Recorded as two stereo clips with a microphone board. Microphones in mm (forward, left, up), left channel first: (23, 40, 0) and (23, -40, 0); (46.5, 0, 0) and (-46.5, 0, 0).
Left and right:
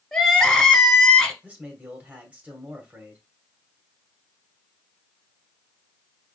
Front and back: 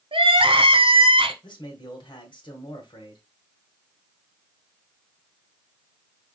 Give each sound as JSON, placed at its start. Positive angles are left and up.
{"t": 0.1, "sound": "crying", "azimuth_deg": 175, "distance_m": 1.1}
{"t": 1.4, "sound": "a man speaking", "azimuth_deg": -20, "distance_m": 1.9}